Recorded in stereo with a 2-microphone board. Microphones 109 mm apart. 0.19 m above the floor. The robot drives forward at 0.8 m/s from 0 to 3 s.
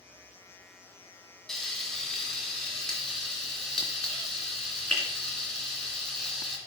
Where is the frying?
5° left (ahead or behind), 1.8 m.